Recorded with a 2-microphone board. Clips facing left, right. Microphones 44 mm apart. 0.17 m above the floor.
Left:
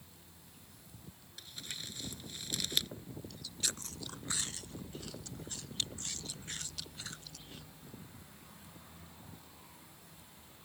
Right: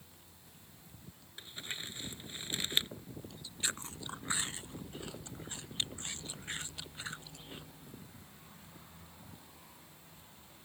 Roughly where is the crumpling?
Right.